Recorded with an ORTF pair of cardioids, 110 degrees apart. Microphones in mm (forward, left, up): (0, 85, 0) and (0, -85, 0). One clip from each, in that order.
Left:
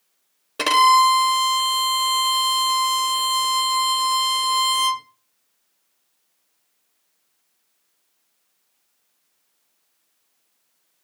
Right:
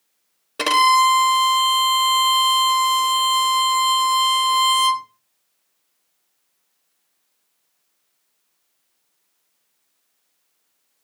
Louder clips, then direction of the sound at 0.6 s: Even; 5° right.